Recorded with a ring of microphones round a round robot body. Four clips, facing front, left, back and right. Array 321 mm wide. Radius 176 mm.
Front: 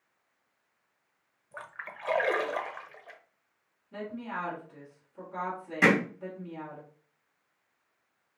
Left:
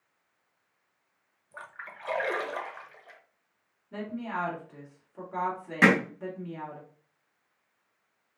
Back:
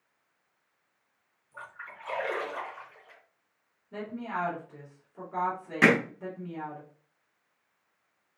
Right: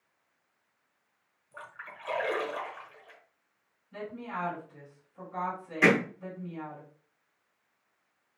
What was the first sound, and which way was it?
A splash, 10° left.